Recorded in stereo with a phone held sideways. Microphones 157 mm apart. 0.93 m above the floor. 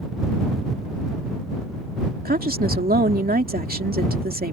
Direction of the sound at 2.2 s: 70° right (ahead or behind).